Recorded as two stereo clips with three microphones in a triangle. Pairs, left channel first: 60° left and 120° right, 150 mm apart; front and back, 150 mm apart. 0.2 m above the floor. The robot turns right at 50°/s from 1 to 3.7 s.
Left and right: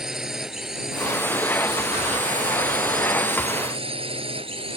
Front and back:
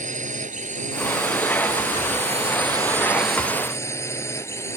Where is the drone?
155° left; by 4.8 s 70° right.